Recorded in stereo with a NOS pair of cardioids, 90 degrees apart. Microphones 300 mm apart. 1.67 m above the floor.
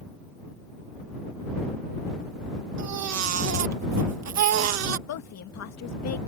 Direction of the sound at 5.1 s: 60° left.